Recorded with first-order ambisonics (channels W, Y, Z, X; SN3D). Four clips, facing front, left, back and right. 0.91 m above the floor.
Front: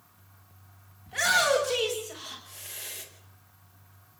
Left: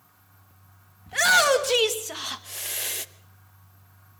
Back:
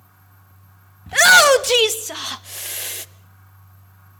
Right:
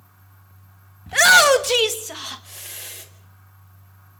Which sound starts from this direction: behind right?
A shout, at 1.1 s.